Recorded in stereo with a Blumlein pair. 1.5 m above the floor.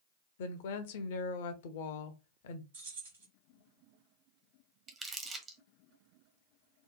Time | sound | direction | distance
0.4 | a woman speaking | 55° left | 0.5 m
2.7 | keys jangling | 65° right | 1.4 m
4.9 | crumpling | 20° right | 0.6 m